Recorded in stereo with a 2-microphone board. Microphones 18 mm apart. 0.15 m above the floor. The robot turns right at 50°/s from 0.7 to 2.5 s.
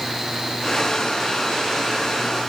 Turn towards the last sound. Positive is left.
No sound to turn to.